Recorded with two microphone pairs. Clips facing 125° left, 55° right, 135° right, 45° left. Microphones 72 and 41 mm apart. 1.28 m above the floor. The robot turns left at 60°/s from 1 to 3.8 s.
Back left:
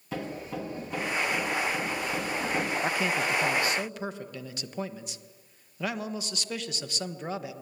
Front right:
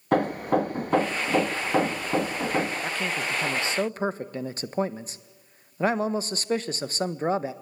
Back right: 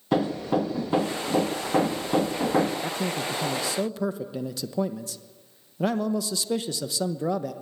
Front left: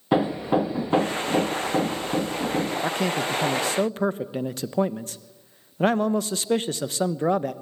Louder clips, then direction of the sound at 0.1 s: Front right 12 dB, front left 3 dB; 25° right.